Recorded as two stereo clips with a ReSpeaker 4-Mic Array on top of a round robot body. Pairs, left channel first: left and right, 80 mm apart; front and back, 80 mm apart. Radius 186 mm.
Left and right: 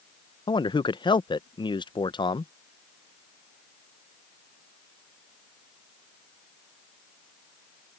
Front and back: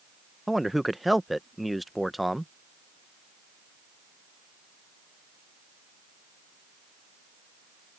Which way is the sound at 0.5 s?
90° left.